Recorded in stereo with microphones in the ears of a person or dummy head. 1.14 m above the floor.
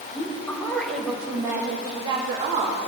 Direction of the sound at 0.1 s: 20° left (ahead or behind).